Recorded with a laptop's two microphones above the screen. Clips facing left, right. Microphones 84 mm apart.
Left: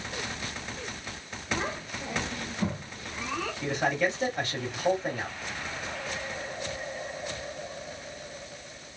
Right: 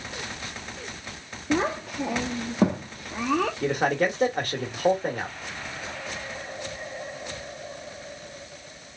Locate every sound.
1.5 s a child speaking: 75° right (ahead or behind), 0.7 m
3.6 s a man speaking: 50° right (ahead or behind), 1.5 m